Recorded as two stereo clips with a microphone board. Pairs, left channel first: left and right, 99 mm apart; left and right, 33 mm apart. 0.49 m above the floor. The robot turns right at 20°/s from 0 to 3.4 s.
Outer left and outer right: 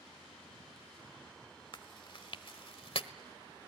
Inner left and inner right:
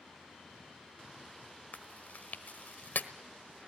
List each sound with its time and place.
1.7 s chewing: 50° left (ahead or behind), 1.2 m; by 3.1 s 70° left (ahead or behind), 1.2 m